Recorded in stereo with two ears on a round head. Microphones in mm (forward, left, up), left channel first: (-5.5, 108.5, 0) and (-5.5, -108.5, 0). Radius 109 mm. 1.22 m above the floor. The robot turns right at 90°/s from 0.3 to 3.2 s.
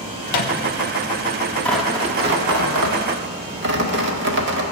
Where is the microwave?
70° left (ahead or behind), 1.2 m; by 0.6 s 75° left (ahead or behind), 1.2 m.